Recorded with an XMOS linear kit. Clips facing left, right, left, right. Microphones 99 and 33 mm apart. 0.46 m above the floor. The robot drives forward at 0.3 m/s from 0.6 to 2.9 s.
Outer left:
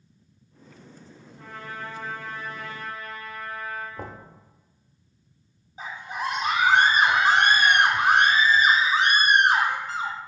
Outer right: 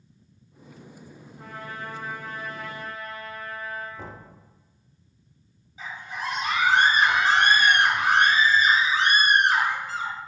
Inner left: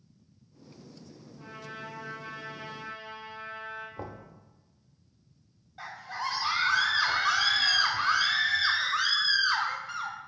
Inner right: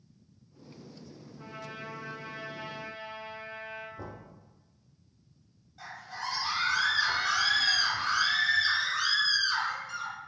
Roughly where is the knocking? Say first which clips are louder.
Outer left 2 dB, inner left 2 dB; left.